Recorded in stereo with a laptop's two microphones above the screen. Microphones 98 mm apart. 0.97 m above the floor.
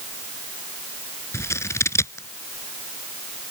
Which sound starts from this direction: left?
Scissors, at 1.3 s.